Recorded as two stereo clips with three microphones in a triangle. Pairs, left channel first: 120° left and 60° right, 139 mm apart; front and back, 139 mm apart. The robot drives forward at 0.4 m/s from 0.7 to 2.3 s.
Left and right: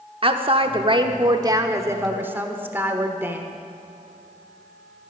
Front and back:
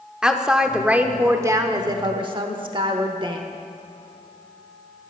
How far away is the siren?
I don't hear a siren.